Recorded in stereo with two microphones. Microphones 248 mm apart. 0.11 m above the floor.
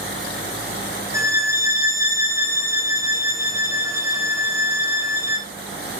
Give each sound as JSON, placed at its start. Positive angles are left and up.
{"t": 1.1, "sound": "a violin", "side_deg": -10, "distance_m": 5.0}